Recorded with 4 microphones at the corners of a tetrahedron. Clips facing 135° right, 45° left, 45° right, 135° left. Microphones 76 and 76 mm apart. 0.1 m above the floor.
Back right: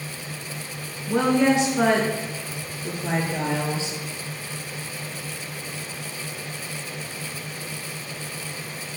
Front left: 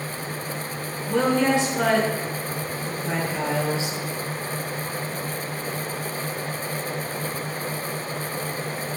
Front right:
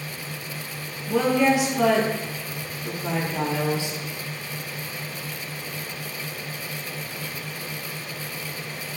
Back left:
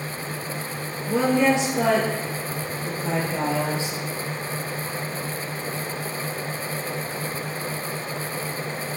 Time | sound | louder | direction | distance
1.1 | a woman speaking | back right 1 dB, even | 170° left | 1.3 m